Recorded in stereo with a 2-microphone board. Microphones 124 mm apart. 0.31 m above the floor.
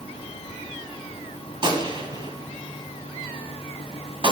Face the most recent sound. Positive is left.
turn(degrees=-40)  # may be behind; listen again after turning